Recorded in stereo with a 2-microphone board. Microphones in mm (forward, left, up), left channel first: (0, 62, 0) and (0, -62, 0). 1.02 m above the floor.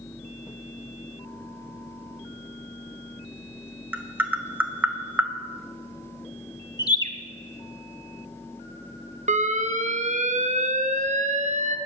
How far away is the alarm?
About 0.9 m.